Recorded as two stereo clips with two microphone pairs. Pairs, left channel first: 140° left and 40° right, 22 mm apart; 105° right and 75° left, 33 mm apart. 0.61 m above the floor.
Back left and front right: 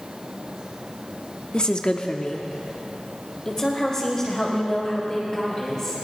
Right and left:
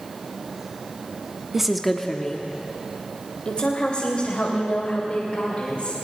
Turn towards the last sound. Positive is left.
turn(degrees=-150)